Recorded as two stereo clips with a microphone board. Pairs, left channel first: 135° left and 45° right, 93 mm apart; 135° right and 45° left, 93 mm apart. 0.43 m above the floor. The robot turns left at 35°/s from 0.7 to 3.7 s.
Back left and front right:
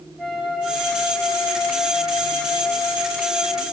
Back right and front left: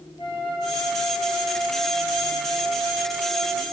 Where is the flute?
135° right, 3 m; by 3.6 s 120° left, 3 m.